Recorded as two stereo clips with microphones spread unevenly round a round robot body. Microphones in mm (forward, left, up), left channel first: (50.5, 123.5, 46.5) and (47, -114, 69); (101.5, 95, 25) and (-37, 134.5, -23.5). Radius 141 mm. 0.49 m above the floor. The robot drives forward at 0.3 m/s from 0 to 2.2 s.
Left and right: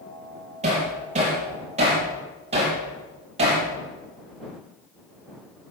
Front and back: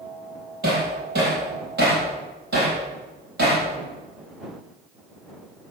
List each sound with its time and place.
0.6 s hammering: 155° right, 5.5 m; by 3.6 s 160° right, 6 m